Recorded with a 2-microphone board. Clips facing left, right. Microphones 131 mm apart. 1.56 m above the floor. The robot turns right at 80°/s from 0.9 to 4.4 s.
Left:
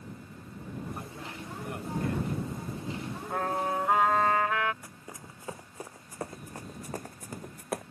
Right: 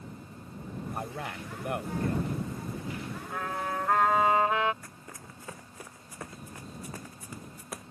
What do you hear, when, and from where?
0.9 s a man speaking: 130° right; by 2.4 s 10° right
3.3 s a trumpet: 120° left; by 4.7 s 155° right
4.8 s running footsteps: 15° left (ahead or behind); by 7.8 s 55° left (ahead or behind)